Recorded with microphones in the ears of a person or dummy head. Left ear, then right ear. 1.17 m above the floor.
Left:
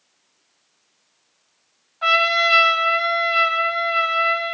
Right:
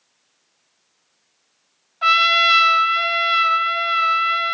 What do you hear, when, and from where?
2.0 s a trumpet: 20° right (ahead or behind), 1.2 m